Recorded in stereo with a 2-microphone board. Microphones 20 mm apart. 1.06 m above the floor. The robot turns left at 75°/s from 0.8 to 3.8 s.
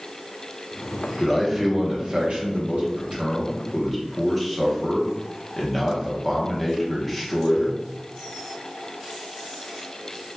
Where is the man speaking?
20° left, 0.9 m; by 7.8 s 175° right, 0.9 m.